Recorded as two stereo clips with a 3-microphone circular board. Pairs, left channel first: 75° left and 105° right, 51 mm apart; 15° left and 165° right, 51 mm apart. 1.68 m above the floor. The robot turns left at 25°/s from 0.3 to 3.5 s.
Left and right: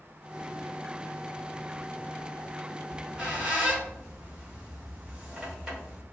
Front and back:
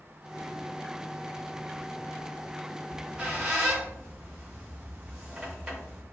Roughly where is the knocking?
No knocking in this recording.